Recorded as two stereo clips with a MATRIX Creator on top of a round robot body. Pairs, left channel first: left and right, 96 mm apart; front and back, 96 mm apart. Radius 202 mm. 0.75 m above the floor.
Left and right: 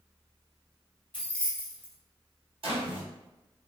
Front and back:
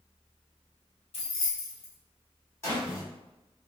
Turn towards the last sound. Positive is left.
turn(degrees=-65)